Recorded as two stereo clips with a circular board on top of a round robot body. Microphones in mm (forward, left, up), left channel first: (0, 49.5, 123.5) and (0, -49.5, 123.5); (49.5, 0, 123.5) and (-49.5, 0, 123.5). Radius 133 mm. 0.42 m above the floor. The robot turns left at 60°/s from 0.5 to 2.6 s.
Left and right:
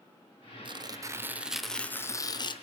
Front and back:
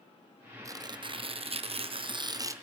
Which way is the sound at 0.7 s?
125° right.